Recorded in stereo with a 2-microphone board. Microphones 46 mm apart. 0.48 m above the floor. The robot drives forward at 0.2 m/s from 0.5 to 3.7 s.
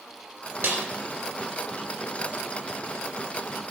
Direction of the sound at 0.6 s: 55° right (ahead or behind).